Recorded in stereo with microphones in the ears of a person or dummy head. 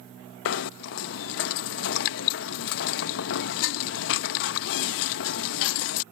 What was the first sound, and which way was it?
Knocking, 60° left (ahead or behind).